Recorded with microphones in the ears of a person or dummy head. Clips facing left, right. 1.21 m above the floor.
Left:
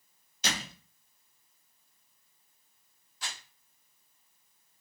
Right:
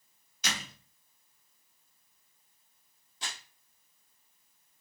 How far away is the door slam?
About 0.6 m.